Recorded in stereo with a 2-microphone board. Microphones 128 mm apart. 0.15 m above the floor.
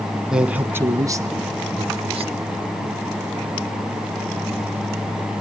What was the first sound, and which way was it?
A man speaking, 5° right (ahead or behind).